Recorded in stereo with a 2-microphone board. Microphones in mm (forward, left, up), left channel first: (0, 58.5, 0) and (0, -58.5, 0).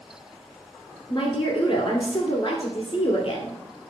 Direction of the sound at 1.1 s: 35° left (ahead or behind).